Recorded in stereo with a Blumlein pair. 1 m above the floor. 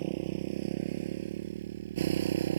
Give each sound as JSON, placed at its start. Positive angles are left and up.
{"t": 0.0, "sound": "a motorcycle", "azimuth_deg": -50}